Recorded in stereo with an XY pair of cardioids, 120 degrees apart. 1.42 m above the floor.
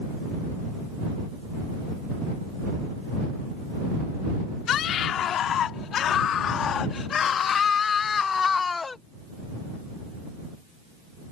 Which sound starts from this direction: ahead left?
A scream, at 4.7 s.